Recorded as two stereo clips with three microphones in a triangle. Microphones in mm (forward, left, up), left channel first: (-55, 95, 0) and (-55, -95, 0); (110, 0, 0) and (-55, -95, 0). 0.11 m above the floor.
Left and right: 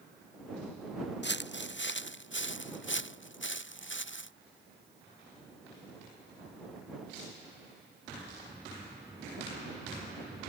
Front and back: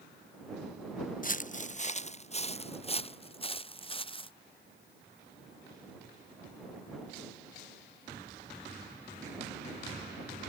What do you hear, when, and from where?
1.2 s footsteps: 70° left; by 4.3 s 90° left